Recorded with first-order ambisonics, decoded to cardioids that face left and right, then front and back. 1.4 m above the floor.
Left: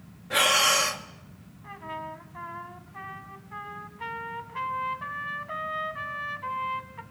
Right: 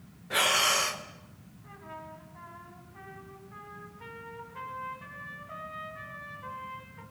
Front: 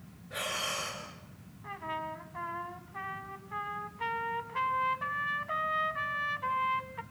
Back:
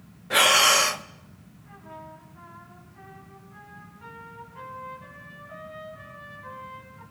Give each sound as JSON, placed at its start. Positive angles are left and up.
{"t": 0.3, "sound": "breathing", "azimuth_deg": 175, "distance_m": 1.0}
{"t": 1.6, "sound": "a trumpet", "azimuth_deg": 30, "distance_m": 2.0}